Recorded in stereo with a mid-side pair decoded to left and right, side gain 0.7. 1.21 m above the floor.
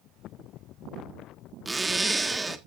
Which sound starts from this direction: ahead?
A zipper, at 1.6 s.